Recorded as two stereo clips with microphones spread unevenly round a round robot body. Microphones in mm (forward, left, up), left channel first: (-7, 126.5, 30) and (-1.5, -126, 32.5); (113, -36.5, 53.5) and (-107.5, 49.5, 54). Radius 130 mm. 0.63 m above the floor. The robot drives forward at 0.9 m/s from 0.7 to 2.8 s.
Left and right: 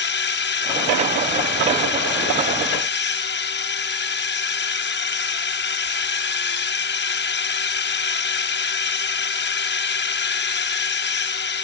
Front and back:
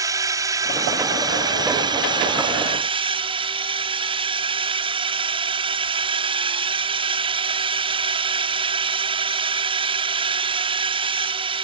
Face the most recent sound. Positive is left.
turn(degrees=100)